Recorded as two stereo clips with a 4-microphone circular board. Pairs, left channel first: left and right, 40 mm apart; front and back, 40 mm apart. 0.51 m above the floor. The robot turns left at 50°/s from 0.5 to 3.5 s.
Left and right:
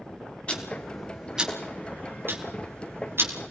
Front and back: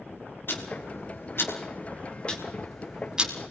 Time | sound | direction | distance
0.5 | ticking | 25° left | 4 m